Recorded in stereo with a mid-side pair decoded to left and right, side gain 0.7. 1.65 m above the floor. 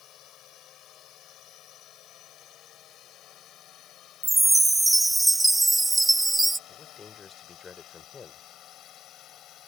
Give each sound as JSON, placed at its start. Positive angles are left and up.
{"t": 0.0, "sound": "a drone", "azimuth_deg": 50}
{"t": 4.2, "sound": "a chime", "azimuth_deg": -10}
{"t": 6.7, "sound": "a man speaking", "azimuth_deg": 25}